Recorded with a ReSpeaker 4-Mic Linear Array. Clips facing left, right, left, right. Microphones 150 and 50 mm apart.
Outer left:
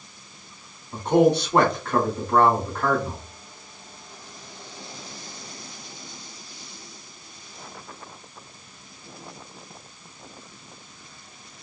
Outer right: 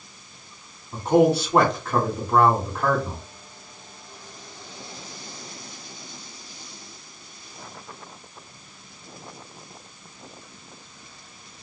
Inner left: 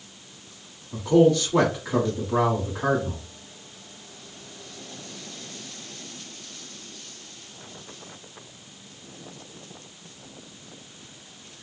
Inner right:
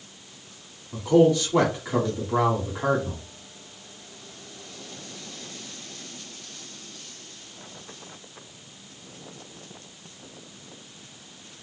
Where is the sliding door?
No sliding door in this recording.